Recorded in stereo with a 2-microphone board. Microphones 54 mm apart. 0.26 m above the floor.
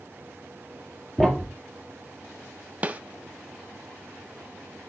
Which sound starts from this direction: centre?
A thud, at 1.2 s.